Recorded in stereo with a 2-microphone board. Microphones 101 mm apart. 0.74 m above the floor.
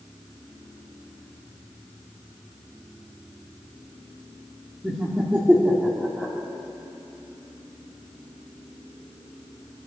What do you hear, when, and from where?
4.8 s laughter: 15° right (ahead or behind), 1.8 m